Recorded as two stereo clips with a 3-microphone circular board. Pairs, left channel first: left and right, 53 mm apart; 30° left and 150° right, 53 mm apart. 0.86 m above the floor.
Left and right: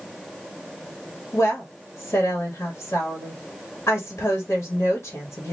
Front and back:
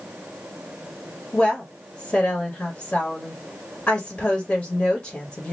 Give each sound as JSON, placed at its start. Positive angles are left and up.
{"t": 1.3, "sound": "a woman speaking", "azimuth_deg": 80, "distance_m": 1.8}